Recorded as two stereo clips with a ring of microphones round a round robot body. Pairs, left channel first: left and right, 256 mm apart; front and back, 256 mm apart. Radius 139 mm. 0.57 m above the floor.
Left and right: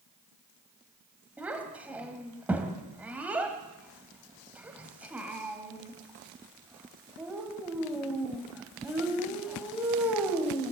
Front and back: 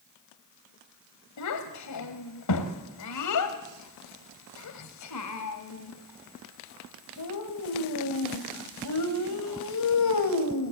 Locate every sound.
1.4 s a child speaking: 5° right, 2.5 m